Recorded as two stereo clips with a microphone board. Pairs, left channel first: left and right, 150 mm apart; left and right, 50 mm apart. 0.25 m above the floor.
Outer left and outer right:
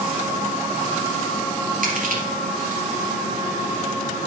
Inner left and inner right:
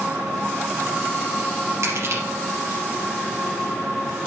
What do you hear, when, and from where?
1.8 s crushing: 65° right (ahead or behind), 4 m